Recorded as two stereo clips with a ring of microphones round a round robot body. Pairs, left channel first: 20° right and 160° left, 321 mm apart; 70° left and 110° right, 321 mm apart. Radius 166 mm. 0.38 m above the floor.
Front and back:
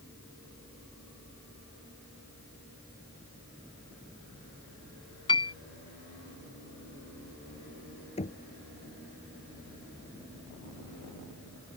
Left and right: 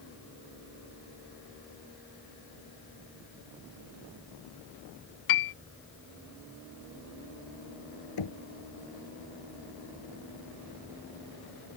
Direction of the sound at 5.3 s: 55° left.